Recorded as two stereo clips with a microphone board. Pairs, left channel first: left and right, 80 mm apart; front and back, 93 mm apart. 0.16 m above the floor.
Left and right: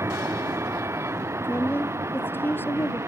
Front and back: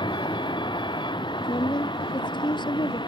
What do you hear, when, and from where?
0.0 s a vehicle: 35° right
1.4 s a woman speaking: 30° left